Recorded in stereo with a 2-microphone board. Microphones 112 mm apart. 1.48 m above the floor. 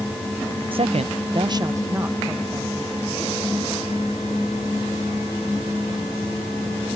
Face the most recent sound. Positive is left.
turn(degrees=-10)  # may be behind; listen again after turning